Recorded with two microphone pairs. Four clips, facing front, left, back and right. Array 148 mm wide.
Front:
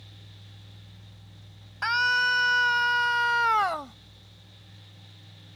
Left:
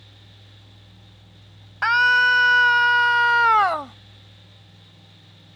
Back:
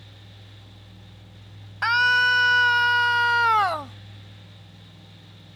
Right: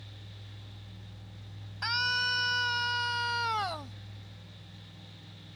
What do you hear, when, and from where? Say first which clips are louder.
1.8 s a scream: left 15 dB, back 5 dB; 110° left; by 4.0 s 105° left